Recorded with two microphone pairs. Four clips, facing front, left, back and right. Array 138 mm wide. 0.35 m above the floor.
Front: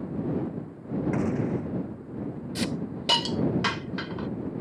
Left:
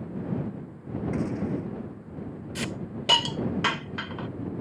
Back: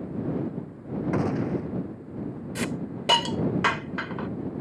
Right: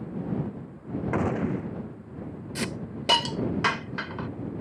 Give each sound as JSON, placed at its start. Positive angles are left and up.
{"t": 1.1, "sound": "a gunshot", "azimuth_deg": -115}
{"t": 2.5, "sound": "a hiss", "azimuth_deg": -160}